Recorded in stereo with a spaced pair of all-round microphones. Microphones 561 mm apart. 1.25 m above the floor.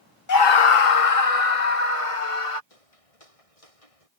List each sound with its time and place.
0.3 s a scream: 35° left (ahead or behind); by 2.6 s 65° left (ahead or behind)
2.7 s footsteps: 75° left (ahead or behind); by 4.1 s 80° left